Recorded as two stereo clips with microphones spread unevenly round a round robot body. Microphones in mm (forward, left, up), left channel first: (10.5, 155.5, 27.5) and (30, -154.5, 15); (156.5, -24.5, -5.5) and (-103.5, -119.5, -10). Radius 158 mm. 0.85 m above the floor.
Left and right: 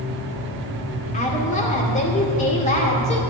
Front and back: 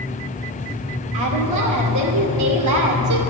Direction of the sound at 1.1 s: 165° left.